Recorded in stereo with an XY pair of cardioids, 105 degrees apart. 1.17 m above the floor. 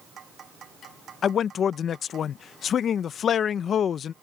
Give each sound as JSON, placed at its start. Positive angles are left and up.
{"t": 1.2, "sound": "a man speaking", "azimuth_deg": 55}